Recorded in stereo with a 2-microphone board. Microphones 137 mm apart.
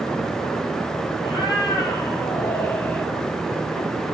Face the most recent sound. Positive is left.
turn(degrees=15)  # may be behind; listen again after turning